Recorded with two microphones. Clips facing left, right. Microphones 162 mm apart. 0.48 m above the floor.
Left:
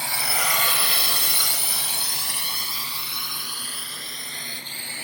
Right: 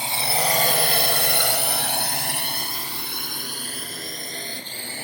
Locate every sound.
0.0 s a drone: 20° right (ahead or behind); by 5.0 s 40° right (ahead or behind)